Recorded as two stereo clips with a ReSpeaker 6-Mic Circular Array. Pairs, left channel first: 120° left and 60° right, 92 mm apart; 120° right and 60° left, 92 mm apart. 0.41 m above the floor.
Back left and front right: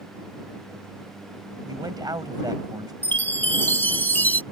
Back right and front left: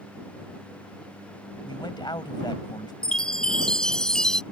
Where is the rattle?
No rattle in this recording.